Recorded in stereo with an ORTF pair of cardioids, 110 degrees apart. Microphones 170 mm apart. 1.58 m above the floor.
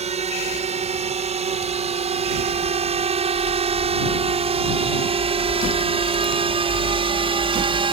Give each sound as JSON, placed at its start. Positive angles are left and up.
{"t": 0.0, "sound": "a drone", "azimuth_deg": -40}